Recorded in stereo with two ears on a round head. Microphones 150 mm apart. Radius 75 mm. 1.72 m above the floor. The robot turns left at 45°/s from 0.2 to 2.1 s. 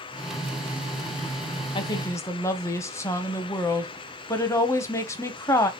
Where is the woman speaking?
30° left (ahead or behind), 0.6 m; by 5.7 s 15° left (ahead or behind), 0.6 m.